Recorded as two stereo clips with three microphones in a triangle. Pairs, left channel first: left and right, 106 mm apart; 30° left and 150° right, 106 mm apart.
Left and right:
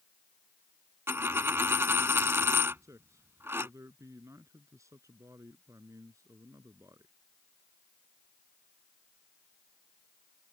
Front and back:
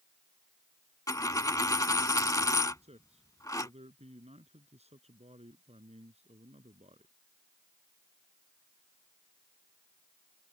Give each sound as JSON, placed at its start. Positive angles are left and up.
{"t": 1.1, "sound": "a dropped coin", "azimuth_deg": -25}
{"t": 2.8, "sound": "a man speaking", "azimuth_deg": -150}